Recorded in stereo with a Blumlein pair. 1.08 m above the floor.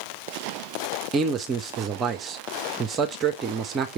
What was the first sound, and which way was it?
A man speaking, 25° right.